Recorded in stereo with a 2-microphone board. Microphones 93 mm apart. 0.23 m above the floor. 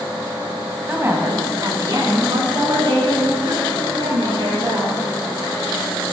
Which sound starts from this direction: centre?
A woman speaking, at 0.9 s.